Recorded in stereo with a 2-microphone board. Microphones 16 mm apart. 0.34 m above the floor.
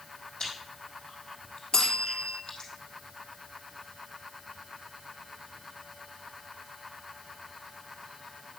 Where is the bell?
65° left (ahead or behind), 3 m.